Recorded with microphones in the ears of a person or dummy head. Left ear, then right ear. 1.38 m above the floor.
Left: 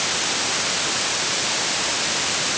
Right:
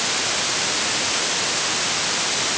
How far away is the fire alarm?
No fire alarm in this recording.